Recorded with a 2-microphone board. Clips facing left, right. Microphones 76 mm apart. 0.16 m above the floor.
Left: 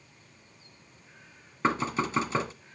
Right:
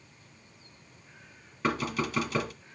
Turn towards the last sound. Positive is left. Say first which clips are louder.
# left 2 dB
turn(degrees=25)  # may be behind; listen again after turning